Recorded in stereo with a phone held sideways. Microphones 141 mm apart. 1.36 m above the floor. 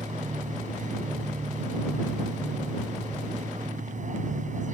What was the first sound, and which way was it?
A machine running, 65° right (ahead or behind).